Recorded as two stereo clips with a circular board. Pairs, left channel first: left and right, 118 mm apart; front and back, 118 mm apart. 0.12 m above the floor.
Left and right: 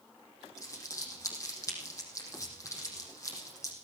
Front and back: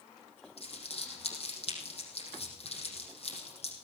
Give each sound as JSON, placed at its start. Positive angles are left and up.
{"t": 0.6, "sound": "crumpling", "azimuth_deg": 25, "distance_m": 5.0}